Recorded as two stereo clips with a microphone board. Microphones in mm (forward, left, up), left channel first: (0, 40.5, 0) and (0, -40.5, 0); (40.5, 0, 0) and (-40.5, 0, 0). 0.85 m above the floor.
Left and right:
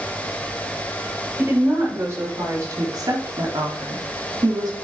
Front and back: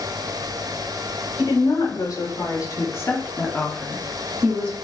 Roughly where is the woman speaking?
Ahead right.